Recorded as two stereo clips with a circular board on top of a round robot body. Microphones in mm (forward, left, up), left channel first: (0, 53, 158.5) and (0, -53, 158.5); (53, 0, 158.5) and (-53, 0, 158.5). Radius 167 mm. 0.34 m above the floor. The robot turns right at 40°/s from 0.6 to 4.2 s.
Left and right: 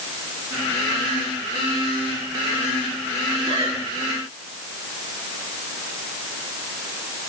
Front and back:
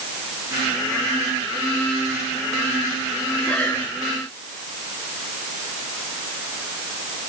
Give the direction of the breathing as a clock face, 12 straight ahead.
3 o'clock.